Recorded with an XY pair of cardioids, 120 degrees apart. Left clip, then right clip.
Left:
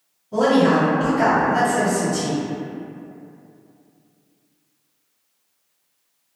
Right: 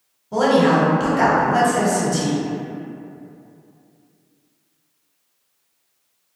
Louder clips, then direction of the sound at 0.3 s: Right 1 dB; 60° right.